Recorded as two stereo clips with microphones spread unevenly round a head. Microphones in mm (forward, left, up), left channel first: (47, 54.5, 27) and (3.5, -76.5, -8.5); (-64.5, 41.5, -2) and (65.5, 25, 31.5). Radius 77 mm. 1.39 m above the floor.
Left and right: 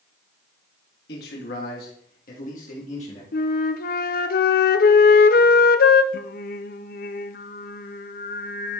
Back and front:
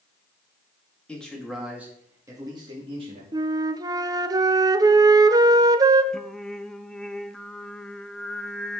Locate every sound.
1.1 s a man speaking: 90° left, 2.5 m; by 3.2 s 35° left, 2.5 m
3.3 s a flute: 55° left, 0.7 m
6.1 s singing: 100° left, 0.7 m